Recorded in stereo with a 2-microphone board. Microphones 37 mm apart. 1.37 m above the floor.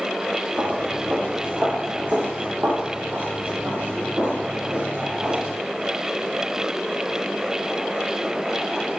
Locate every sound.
0.6 s footsteps: 40° right (ahead or behind), 4 m; by 5.5 s 75° right (ahead or behind), 7.5 m